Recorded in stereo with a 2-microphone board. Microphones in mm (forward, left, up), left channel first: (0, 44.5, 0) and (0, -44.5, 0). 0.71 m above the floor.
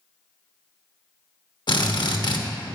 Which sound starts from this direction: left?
A drill, at 1.7 s.